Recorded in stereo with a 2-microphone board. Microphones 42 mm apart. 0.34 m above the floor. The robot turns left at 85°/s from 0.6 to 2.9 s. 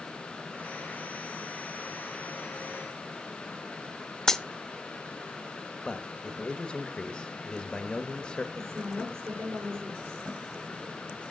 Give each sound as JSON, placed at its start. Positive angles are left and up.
{"t": 4.3, "sound": "a dropped coin", "side_deg": 10, "distance_m": 0.7}
{"t": 5.8, "sound": "a man speaking", "side_deg": 20, "distance_m": 0.9}
{"t": 8.6, "sound": "a woman speaking", "side_deg": -75, "distance_m": 6.5}